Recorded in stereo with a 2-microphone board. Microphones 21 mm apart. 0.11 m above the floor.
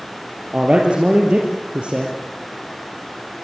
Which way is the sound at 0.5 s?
50° right (ahead or behind).